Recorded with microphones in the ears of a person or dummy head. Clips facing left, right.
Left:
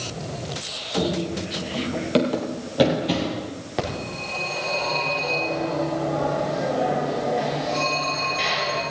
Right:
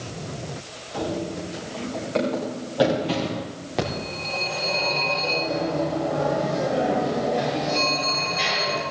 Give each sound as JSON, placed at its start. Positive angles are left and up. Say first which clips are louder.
{"t": 0.9, "sound": "running footsteps", "louder": "left 3 dB", "side_deg": 65, "distance_m": 3.5}
{"t": 3.8, "sound": "a phone ringing", "louder": "right 1 dB", "side_deg": 0, "distance_m": 4.0}